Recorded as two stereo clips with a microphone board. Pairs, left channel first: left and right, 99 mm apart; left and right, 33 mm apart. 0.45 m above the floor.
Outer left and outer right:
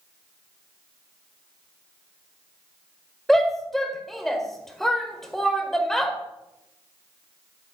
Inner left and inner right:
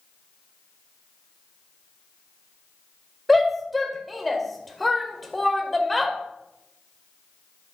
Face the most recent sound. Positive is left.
turn(degrees=0)  # may be behind; listen again after turning